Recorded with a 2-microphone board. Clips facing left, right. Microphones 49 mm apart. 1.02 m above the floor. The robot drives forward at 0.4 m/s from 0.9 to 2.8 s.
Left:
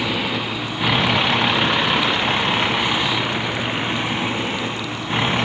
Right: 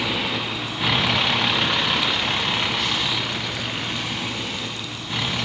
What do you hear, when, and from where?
0.0 s a vehicle: 10° left (ahead or behind); by 5.5 s 35° left (ahead or behind)